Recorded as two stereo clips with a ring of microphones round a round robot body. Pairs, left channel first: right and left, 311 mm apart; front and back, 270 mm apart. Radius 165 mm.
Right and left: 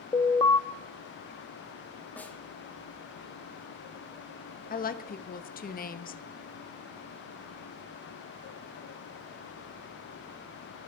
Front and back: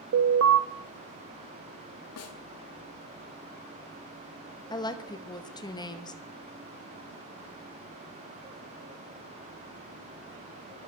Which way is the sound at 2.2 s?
5° right.